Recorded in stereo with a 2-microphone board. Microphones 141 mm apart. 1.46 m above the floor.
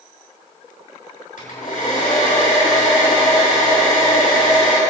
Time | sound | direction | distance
1.4 | a hair dryer | 75° left (ahead or behind) | 6 m